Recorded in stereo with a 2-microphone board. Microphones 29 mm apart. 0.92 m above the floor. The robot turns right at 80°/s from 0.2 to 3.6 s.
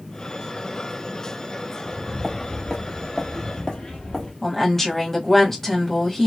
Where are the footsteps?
20° right (ahead or behind), 1.3 m; by 4.3 s 25° left (ahead or behind), 1.4 m.